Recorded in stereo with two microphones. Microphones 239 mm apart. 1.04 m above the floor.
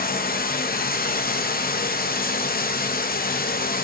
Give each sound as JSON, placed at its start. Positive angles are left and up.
{"t": 0.0, "sound": "running water", "side_deg": 40, "distance_m": 0.8}